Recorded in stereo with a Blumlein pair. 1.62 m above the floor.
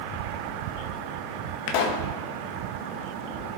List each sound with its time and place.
1.7 s a pop: 45° left, 1.8 m